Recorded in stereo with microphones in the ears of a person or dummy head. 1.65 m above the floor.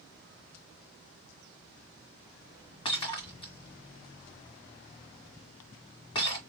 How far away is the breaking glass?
About 2.0 m.